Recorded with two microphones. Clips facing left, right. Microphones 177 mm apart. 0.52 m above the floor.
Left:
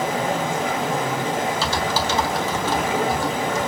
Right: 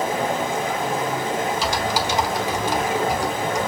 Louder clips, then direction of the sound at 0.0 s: Even; 80° left.